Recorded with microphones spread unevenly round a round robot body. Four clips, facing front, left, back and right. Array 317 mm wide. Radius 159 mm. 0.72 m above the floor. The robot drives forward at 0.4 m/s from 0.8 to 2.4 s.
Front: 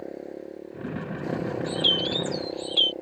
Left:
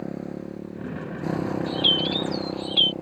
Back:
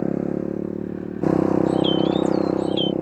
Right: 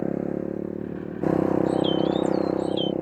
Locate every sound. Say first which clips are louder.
0.0 s a motorcycle: right 6 dB, back 13 dB; 170° right
1.7 s a bird: right 5 dB, back 10 dB; 75° left